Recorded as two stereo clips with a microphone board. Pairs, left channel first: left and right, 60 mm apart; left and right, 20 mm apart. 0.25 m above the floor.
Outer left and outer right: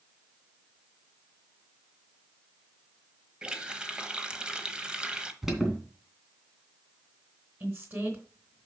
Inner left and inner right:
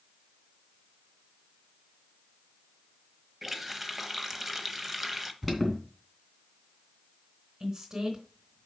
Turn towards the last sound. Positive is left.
turn(degrees=-35)  # may be behind; listen again after turning